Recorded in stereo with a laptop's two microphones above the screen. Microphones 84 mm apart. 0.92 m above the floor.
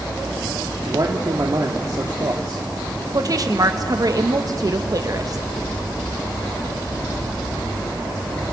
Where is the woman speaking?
45° right (ahead or behind), 1.0 m.